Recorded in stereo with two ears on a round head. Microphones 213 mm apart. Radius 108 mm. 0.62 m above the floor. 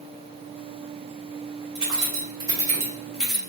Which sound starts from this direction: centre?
Keys jangling, at 1.8 s.